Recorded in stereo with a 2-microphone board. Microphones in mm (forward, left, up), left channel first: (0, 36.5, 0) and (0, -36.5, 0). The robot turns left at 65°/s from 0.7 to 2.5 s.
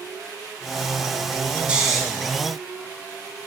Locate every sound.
1.7 s snoring: 15° right (ahead or behind), 0.5 m; by 2.0 s 5° left (ahead or behind), 0.5 m